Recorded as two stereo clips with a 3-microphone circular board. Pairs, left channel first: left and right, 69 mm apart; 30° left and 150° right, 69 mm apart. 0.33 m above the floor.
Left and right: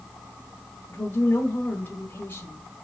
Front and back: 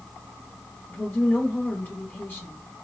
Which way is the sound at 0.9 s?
65° left.